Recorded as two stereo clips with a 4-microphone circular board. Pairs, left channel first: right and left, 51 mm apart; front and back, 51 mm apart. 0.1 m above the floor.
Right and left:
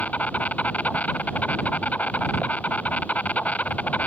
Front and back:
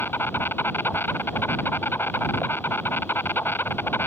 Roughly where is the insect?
Ahead right.